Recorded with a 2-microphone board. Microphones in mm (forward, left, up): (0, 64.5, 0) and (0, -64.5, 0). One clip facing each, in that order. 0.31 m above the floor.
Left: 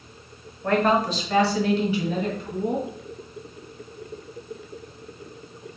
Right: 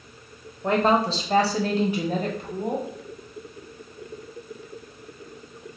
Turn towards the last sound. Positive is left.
turn(degrees=-60)  # may be behind; listen again after turning